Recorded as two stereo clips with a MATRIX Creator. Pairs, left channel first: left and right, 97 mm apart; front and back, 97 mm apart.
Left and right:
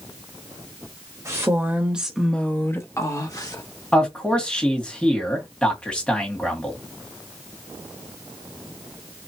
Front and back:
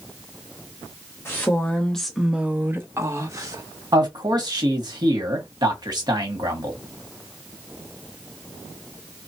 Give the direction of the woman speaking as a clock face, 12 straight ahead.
2 o'clock.